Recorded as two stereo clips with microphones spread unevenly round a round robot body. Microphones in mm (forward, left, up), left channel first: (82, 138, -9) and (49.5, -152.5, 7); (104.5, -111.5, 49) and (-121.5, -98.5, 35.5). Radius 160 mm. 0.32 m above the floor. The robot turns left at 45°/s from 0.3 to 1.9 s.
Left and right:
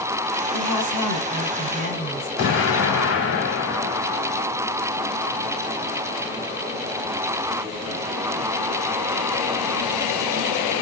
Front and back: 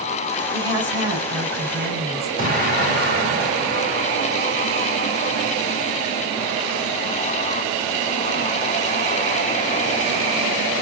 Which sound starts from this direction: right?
A woman speaking, at 0.5 s.